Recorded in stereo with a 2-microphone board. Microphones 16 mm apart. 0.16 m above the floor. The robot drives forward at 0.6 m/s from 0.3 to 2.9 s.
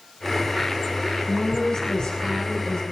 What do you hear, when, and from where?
1.3 s a woman speaking: 50° left (ahead or behind), 5.5 m; by 2.8 s 60° left (ahead or behind), 5 m